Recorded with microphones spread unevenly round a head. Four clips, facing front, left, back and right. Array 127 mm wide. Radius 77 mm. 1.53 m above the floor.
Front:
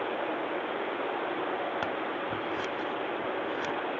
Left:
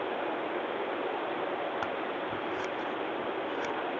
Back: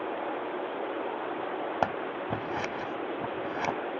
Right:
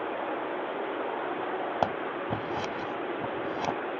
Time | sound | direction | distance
1.8 | scissors | 135° right | ?